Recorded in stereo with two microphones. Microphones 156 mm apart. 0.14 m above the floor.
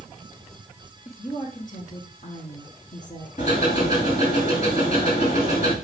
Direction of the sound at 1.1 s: 55° left (ahead or behind).